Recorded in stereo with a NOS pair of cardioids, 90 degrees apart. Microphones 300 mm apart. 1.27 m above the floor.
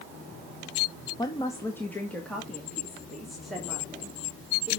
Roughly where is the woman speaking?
Ahead.